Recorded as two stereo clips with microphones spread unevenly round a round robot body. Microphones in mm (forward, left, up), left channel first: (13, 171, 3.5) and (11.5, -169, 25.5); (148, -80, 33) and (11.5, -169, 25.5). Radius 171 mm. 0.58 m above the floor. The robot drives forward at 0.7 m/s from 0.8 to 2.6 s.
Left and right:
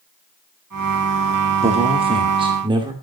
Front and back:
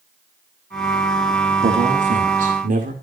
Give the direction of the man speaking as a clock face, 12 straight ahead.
5 o'clock.